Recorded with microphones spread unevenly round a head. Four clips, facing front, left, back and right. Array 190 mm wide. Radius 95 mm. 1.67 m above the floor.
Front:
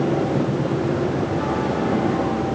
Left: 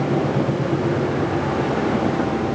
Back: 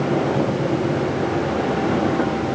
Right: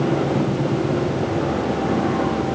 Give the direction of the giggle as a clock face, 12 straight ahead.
I don't hear a giggle.